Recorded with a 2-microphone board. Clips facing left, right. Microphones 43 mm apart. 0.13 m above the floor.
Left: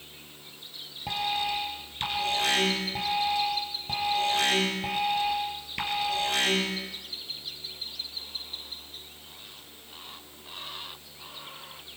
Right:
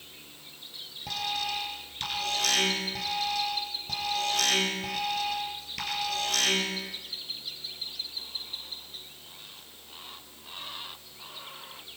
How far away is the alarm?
About 4 m.